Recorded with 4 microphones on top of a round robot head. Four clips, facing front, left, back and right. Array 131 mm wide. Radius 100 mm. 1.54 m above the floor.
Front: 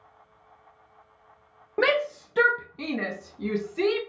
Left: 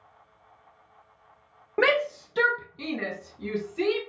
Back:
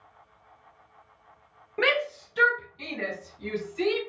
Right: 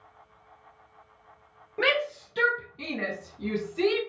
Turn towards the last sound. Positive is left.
turn(degrees=-10)